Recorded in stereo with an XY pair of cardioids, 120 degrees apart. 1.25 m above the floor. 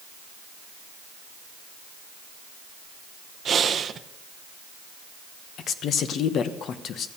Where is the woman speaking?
60° left, 1.1 m.